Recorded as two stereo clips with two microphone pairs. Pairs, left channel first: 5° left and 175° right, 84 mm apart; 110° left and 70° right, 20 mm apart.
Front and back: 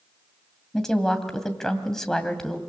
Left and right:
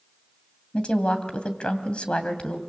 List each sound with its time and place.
0.7 s a woman speaking: 90° left, 2.5 m